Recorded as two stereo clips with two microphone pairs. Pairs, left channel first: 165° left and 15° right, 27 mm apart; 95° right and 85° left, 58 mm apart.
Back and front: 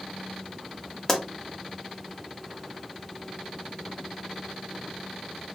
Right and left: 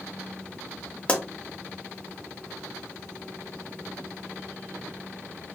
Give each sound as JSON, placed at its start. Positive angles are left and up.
{"t": 1.1, "sound": "a pop", "azimuth_deg": -130, "distance_m": 0.6}